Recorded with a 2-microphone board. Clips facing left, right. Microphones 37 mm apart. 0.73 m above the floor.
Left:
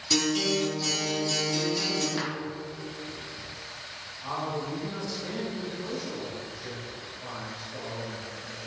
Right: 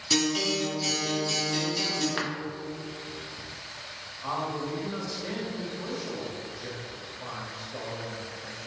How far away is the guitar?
About 1.2 m.